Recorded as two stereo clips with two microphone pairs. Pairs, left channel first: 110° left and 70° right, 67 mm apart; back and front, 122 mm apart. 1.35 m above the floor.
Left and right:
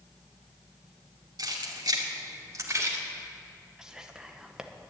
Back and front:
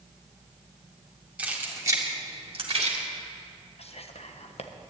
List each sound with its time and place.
1.4 s keys jangling: 75° right, 2 m; by 3.0 s 25° right, 2 m
3.8 s whispering: 150° right, 1.3 m